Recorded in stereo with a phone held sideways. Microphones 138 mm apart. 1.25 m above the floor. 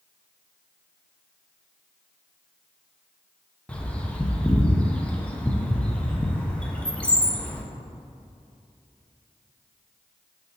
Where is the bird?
10° left (ahead or behind), 0.7 m.